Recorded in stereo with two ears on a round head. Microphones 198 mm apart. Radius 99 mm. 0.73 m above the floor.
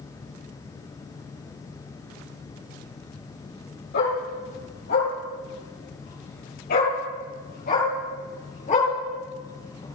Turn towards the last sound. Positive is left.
turn(degrees=30)  # may be behind; listen again after turning